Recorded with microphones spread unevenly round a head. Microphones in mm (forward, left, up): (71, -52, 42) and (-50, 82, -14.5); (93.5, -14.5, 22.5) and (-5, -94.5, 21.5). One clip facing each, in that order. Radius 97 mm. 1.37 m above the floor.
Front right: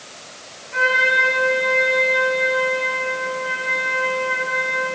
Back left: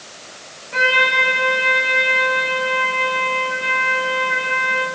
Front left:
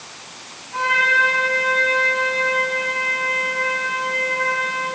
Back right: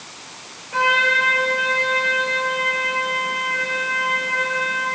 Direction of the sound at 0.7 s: Straight behind.